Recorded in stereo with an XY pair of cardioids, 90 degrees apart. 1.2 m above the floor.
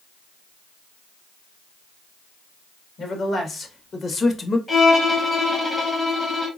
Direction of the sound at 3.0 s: 60° left.